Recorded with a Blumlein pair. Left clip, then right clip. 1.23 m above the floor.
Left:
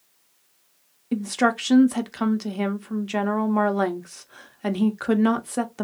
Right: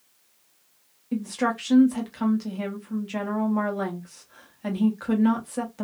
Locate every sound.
1.1 s a woman speaking: 65° left, 0.7 m